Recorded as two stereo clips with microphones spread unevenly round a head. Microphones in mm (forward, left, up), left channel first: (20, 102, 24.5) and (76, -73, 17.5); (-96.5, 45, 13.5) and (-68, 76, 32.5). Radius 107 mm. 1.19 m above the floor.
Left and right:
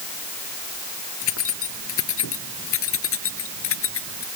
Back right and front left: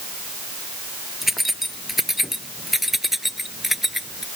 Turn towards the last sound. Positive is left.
turn(degrees=130)